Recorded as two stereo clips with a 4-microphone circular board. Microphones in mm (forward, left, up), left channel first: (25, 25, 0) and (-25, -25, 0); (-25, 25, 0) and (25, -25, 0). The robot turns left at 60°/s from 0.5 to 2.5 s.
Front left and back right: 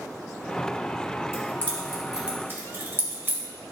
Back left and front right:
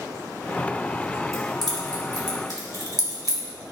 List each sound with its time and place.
1.3 s keys jangling: 5° right, 2.5 m; by 3.4 s 75° right, 2.5 m